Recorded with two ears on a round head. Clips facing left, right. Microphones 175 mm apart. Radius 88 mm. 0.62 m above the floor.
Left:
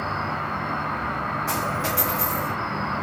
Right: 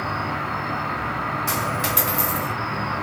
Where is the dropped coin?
50° right (ahead or behind), 1.5 m.